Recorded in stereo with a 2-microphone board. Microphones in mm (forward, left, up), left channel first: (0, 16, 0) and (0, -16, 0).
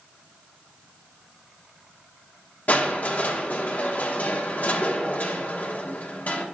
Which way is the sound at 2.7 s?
60° left (ahead or behind).